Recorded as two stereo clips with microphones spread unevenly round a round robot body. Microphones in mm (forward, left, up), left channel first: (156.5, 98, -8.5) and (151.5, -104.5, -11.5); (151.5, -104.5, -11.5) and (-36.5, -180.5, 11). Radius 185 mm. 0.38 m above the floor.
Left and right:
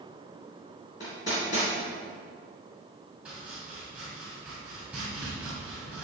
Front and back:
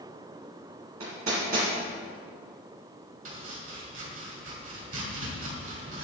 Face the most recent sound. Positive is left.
turn(degrees=-175)